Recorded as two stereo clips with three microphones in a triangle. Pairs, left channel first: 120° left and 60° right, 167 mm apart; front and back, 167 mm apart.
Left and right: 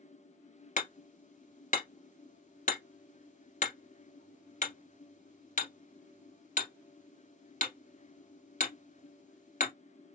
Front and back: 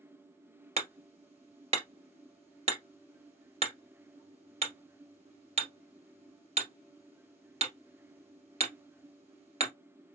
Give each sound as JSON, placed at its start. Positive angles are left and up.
{"t": 0.8, "sound": "hammering", "azimuth_deg": 140, "distance_m": 1.8}